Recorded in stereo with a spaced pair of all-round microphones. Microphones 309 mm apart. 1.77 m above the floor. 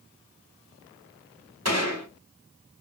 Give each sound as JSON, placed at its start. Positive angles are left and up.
{"t": 1.6, "sound": "a gunshot", "side_deg": -60, "distance_m": 4.0}